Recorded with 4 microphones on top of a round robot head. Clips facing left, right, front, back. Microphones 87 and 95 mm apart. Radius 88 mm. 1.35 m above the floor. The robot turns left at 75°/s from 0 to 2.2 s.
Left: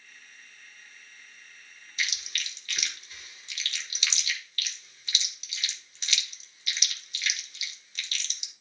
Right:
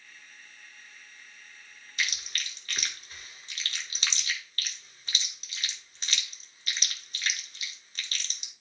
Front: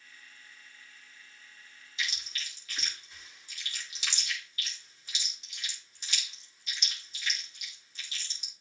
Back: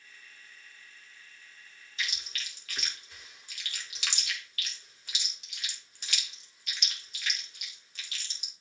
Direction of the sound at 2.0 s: 125° right.